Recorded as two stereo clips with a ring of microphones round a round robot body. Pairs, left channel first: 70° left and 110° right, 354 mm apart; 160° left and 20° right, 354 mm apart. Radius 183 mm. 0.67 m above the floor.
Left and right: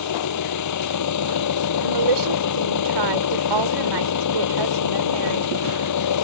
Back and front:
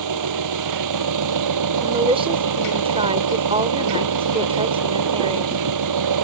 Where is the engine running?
20° left.